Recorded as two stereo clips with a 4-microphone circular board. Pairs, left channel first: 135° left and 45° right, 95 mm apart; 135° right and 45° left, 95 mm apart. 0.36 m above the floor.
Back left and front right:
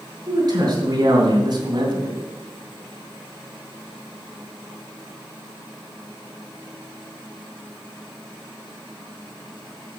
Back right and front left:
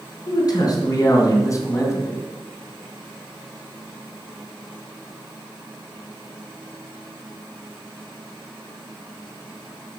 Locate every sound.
0.3 s a man speaking: 90° right, 3.5 m; by 2.2 s 75° right, 2 m